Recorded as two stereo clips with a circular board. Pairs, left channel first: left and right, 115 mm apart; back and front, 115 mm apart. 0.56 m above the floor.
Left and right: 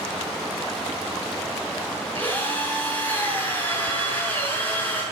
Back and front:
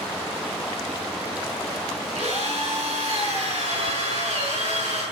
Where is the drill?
15° left, 7 m.